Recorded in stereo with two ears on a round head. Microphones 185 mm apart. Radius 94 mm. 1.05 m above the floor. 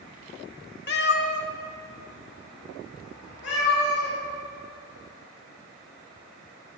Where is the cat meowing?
50° left (ahead or behind), 1.0 m; by 4.2 s 60° left (ahead or behind), 6 m.